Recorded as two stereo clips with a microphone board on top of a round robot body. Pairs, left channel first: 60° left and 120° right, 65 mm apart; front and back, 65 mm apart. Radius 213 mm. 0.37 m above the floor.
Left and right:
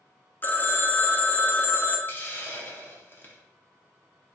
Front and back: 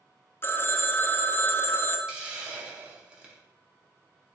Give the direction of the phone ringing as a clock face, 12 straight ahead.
11 o'clock.